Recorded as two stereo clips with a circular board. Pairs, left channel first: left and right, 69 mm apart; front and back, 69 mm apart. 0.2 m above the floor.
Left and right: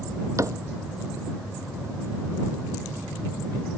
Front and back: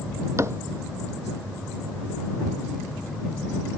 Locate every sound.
0.4 s a cupboard door: 130° right